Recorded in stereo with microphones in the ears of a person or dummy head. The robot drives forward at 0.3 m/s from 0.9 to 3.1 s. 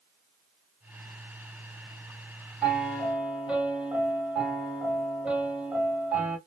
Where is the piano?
10° right (ahead or behind), 2.5 m.